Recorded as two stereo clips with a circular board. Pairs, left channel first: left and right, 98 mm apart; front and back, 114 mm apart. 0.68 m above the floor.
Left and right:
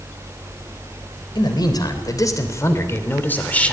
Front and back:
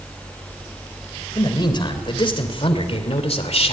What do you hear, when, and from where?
1.4 s a man speaking: 50° left, 3.5 m; by 3.7 s 15° left, 2.5 m